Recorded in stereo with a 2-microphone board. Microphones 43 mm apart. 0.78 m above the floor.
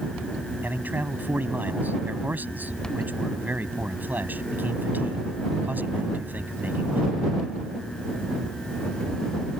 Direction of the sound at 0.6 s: 40° right (ahead or behind).